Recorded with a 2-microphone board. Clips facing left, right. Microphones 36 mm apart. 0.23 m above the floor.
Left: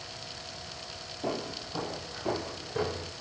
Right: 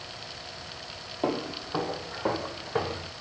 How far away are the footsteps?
About 3 m.